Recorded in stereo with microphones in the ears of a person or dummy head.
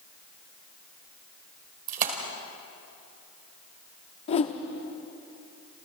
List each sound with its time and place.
1.9 s a splash: 45° right (ahead or behind), 2.5 m
4.3 s a whoosh: 30° left (ahead or behind), 1.0 m